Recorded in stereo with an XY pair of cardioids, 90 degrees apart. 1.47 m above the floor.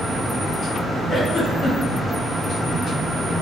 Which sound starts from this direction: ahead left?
A giggle, at 1.1 s.